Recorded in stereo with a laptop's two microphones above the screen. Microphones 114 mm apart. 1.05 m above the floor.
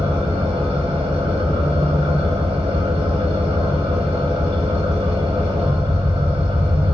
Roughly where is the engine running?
Right.